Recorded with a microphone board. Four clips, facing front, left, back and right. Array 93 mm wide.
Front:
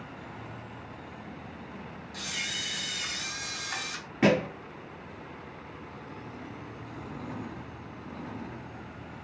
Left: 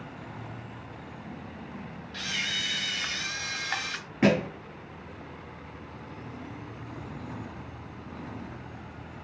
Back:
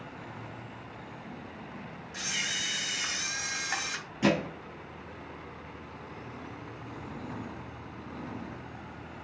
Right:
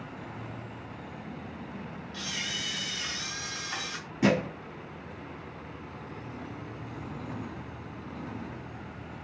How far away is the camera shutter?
About 2 m.